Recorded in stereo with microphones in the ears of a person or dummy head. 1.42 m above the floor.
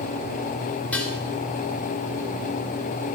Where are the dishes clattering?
10° left (ahead or behind), 3.5 m.